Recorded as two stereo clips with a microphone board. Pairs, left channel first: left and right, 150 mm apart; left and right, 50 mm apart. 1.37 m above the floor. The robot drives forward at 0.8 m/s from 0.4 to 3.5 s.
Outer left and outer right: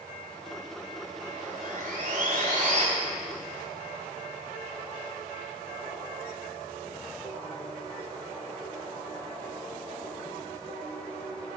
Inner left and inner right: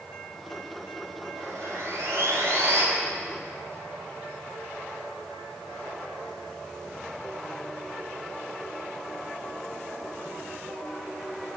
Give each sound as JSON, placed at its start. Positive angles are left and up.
{"t": 1.4, "sound": "sawing", "side_deg": -60, "distance_m": 2.0}